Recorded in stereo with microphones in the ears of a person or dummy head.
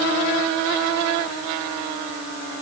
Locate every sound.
Only background noise.